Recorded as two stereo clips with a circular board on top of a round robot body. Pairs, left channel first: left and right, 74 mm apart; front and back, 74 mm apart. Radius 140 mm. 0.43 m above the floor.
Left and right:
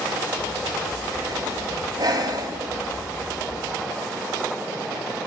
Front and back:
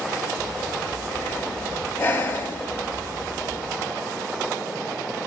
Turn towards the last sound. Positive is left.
turn(degrees=-60)